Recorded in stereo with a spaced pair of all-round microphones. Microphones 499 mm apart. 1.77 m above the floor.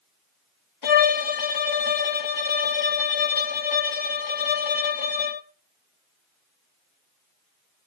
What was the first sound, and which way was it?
A violin, 65° left (ahead or behind).